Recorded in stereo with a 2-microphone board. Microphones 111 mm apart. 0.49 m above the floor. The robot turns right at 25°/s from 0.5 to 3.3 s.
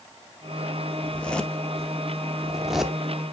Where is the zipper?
10° left (ahead or behind), 0.8 m; by 3.0 s 5° right (ahead or behind), 0.8 m.